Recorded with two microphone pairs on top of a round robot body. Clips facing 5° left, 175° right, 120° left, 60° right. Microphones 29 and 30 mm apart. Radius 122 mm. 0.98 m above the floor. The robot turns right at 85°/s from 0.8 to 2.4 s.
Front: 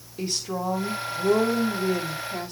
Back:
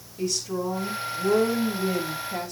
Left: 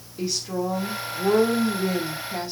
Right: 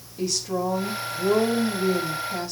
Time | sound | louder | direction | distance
0.2 | a woman speaking | back 1 dB, right 1 dB | 50° left | 3 m